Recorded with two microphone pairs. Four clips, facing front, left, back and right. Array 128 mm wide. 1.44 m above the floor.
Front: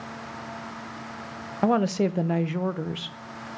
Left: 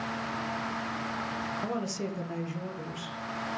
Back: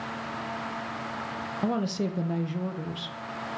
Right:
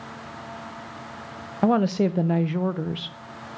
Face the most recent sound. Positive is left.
turn(degrees=-45)